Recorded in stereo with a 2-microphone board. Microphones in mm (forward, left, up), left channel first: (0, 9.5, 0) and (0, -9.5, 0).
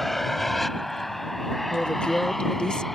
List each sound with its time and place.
0.0 s an aircraft: 10° left (ahead or behind)
1.7 s a woman speaking: 40° left (ahead or behind)